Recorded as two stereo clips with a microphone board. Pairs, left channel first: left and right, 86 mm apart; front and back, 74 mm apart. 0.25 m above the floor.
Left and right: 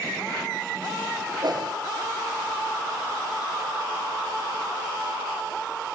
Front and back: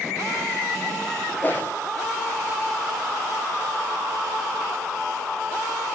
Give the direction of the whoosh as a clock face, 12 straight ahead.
2 o'clock.